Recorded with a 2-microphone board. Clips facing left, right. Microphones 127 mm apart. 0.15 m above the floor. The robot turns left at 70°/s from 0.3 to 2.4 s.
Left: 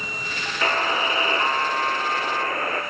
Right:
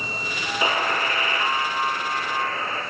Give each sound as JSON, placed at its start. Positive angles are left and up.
{"t": 0.6, "sound": "a buzzer", "azimuth_deg": -165, "distance_m": 3.0}